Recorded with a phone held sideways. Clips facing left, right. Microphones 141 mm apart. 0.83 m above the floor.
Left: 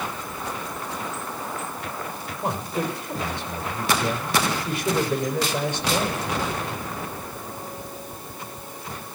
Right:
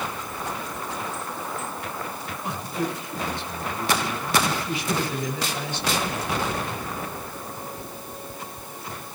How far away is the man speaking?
About 4 m.